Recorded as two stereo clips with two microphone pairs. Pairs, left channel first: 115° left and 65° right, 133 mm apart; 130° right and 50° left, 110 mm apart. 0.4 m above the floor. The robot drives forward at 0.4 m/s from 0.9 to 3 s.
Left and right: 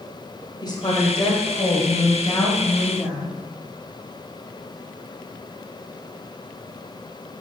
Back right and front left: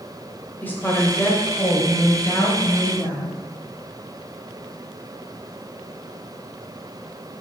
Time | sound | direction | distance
0.6 | a woman speaking | 165° left | 1.9 m